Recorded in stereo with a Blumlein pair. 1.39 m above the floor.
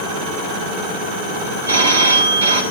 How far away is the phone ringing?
About 3.5 m.